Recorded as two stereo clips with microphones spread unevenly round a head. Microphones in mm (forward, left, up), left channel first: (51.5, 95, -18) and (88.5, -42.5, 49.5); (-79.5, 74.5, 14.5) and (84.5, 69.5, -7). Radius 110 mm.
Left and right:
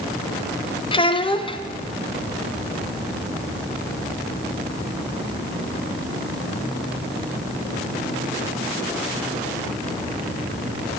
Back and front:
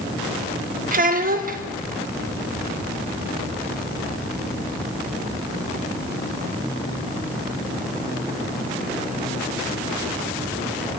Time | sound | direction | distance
0.9 | a child speaking | 40° left | 1.0 m